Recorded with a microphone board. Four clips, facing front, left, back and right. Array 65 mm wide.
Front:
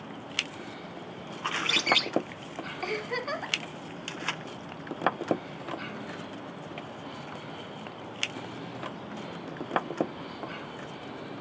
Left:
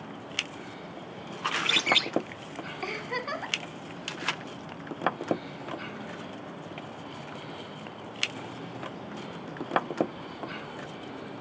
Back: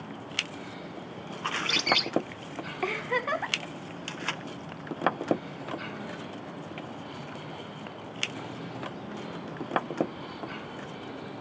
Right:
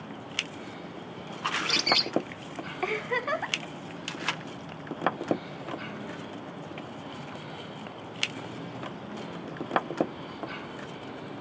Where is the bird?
70° left, 0.6 m.